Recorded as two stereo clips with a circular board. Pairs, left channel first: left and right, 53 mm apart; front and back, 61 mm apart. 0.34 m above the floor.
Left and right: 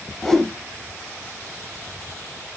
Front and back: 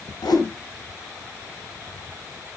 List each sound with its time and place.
0.2 s a whoosh: 5° left, 0.6 m